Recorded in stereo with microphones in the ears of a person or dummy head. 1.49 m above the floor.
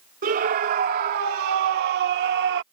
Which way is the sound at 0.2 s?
55° right (ahead or behind).